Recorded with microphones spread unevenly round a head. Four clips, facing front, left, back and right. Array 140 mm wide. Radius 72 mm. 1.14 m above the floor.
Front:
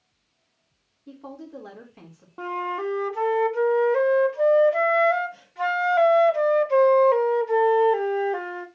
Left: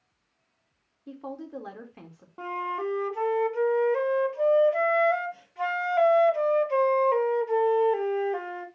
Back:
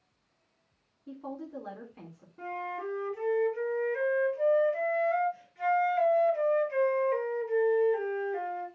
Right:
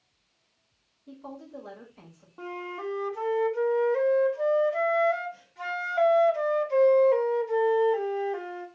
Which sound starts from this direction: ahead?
A flute, at 2.4 s.